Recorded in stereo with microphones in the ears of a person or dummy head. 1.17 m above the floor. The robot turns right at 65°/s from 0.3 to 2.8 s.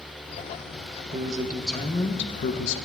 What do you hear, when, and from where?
1.1 s a man speaking: 35° right, 0.5 m; by 2.8 s 70° left, 0.5 m